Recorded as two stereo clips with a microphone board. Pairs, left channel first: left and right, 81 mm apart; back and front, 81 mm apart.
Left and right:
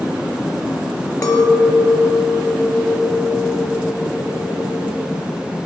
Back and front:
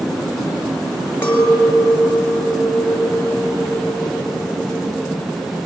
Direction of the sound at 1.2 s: 120° left.